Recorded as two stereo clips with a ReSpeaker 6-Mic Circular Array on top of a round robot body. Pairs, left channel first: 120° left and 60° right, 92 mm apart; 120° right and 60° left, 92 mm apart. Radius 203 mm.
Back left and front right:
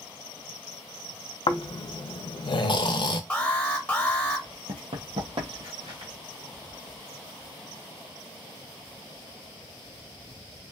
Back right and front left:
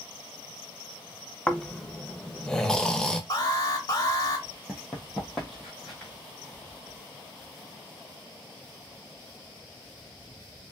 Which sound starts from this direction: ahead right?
Running footsteps, at 4.7 s.